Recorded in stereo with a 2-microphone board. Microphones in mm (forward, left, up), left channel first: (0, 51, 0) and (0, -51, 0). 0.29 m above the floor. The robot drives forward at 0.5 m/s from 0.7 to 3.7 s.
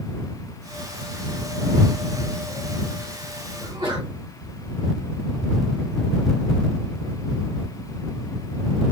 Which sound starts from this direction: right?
A sneeze, at 3.6 s.